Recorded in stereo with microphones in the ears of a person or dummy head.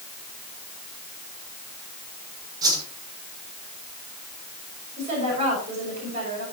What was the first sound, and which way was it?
A whoosh, 25° right (ahead or behind).